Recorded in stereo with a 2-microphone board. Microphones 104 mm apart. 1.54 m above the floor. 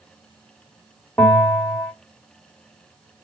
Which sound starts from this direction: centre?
A bell, at 1.2 s.